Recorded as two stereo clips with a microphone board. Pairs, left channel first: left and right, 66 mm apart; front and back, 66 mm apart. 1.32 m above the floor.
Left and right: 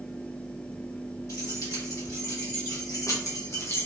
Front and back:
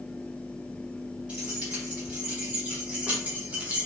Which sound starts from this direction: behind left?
Keys jangling, at 1.3 s.